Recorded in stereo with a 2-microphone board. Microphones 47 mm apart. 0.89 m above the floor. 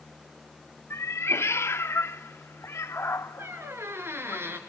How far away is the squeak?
About 3 m.